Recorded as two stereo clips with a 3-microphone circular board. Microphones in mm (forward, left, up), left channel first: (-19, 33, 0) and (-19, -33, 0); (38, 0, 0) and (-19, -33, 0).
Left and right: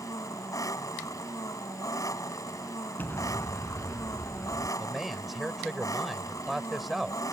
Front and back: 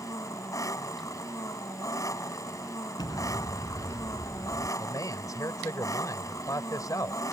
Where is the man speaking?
5° right.